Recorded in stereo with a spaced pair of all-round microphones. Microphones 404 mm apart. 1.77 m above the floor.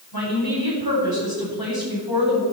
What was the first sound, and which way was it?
A woman speaking, 65° left (ahead or behind).